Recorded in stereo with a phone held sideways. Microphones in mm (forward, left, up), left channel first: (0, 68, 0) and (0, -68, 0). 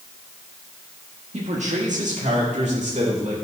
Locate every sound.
1.3 s a man speaking: 60° right (ahead or behind), 1.4 m